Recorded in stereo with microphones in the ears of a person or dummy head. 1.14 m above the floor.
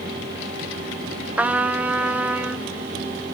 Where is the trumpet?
5° right (ahead or behind), 0.6 m.